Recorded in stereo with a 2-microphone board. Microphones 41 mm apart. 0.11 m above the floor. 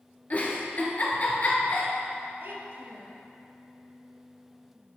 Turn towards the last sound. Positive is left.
turn(degrees=-60)  # may be behind; listen again after turning